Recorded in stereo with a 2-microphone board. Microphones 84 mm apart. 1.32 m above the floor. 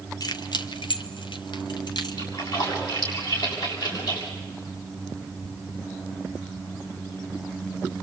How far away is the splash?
About 7 m.